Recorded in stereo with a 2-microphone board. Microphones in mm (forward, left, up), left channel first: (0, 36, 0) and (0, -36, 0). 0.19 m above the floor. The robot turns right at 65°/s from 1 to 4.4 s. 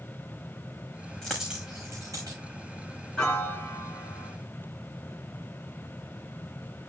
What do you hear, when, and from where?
1.2 s a dropped coin: 10° left (ahead or behind), 4.5 m; by 2.4 s 65° right (ahead or behind), 4.5 m
3.2 s a piano: 15° left, 2 m; by 4.3 s 85° left, 2 m